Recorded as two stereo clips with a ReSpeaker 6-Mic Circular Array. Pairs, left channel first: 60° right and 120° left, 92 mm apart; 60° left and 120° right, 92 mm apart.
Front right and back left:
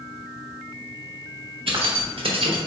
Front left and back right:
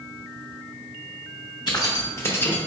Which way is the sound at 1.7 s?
105° left.